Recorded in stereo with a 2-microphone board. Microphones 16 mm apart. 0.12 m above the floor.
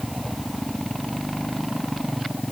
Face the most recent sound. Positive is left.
No sound to turn to.